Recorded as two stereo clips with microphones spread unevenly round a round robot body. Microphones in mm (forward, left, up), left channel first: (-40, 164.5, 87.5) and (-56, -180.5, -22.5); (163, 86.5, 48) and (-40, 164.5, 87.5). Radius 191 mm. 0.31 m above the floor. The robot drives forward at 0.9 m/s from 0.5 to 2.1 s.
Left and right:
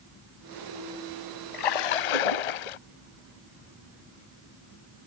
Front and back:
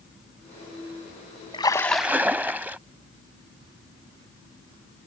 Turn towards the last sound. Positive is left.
turn(degrees=75)